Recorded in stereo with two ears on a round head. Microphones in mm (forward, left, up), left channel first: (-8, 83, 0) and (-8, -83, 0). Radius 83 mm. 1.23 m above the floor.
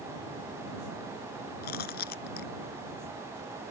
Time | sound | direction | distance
1.6 | chewing | 55° left (ahead or behind) | ?